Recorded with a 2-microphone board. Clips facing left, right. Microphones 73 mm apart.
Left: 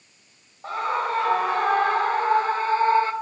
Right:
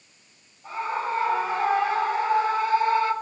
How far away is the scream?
About 4.5 m.